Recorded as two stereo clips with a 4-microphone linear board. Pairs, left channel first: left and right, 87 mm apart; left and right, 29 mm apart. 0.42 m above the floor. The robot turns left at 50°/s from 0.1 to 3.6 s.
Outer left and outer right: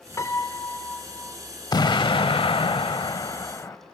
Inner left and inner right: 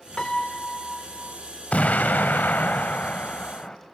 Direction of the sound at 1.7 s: 130° left.